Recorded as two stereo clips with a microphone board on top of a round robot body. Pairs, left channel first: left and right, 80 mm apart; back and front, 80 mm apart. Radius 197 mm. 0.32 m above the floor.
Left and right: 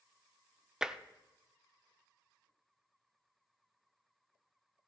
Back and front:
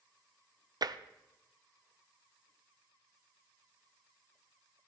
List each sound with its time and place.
0.8 s tapping: 10° right, 0.8 m